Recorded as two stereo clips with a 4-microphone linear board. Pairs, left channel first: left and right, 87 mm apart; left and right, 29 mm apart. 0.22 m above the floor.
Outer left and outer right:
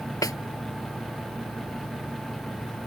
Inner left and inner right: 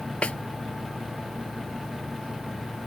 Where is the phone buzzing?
No phone buzzing in this recording.